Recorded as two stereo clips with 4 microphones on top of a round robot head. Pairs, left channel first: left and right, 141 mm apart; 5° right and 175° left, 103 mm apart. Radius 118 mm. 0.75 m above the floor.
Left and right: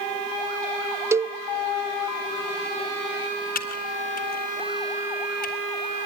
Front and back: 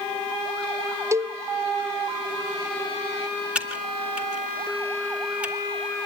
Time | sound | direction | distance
1.1 | a cowbell | 150° right | 0.6 m
3.5 | typing on a keyboard | 95° left | 2 m